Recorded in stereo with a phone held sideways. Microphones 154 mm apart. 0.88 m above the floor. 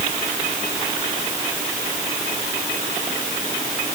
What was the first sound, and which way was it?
Only background noise.